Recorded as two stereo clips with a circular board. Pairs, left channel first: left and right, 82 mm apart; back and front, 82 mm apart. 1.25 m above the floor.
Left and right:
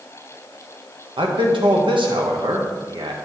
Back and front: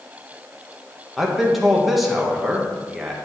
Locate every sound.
1.2 s a man speaking: 90° right, 1.2 m